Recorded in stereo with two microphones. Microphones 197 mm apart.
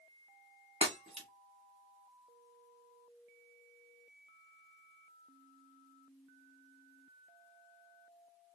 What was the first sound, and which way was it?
Breaking glass, 30° right (ahead or behind).